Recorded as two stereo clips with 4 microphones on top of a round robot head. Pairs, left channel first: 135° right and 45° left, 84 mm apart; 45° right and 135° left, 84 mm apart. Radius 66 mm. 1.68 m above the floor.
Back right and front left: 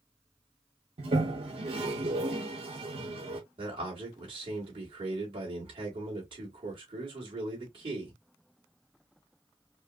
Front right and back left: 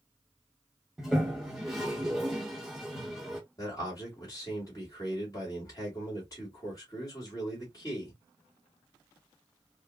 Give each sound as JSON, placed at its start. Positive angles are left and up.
{"t": 1.0, "sound": "a toilet flushing", "azimuth_deg": 50, "distance_m": 0.9}
{"t": 3.6, "sound": "a man speaking", "azimuth_deg": 10, "distance_m": 2.0}